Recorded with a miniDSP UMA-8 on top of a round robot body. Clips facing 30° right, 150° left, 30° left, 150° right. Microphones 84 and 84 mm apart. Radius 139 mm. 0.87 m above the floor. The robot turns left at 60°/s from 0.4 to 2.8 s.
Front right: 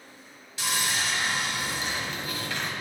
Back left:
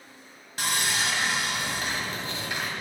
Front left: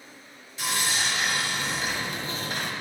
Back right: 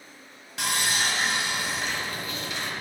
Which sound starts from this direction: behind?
Sawing, at 0.6 s.